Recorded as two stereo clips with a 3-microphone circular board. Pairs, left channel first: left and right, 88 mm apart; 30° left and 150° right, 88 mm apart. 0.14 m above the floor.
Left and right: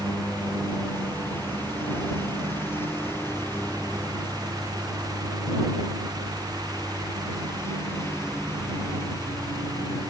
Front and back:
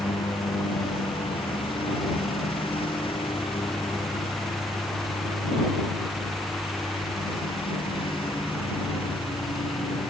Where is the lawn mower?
20° left; by 10.1 s 30° left.